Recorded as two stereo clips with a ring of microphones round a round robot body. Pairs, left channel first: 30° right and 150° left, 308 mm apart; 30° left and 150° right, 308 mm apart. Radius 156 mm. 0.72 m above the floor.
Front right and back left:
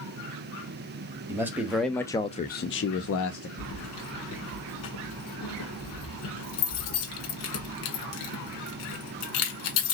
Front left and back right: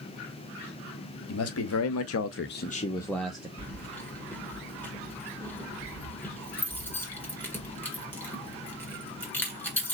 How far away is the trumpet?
No trumpet in this recording.